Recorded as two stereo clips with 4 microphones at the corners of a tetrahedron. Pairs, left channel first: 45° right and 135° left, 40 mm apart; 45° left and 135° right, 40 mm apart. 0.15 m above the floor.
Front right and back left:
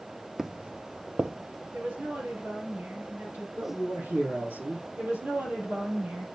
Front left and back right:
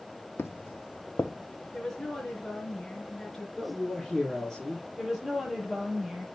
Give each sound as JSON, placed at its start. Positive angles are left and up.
{"t": 0.4, "sound": "footsteps", "azimuth_deg": 55, "distance_m": 0.5}
{"t": 1.7, "sound": "a woman speaking", "azimuth_deg": 125, "distance_m": 3.0}
{"t": 3.6, "sound": "a man speaking", "azimuth_deg": 125, "distance_m": 4.5}
{"t": 5.0, "sound": "a woman speaking", "azimuth_deg": 140, "distance_m": 4.0}